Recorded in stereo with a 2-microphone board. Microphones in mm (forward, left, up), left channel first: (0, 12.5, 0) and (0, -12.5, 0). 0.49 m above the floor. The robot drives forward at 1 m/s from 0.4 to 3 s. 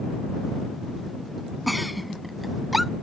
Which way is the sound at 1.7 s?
5° right (ahead or behind).